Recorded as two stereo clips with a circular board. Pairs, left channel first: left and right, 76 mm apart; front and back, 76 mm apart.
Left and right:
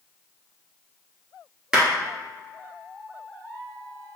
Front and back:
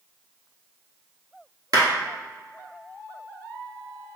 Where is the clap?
170° right, 1.7 m.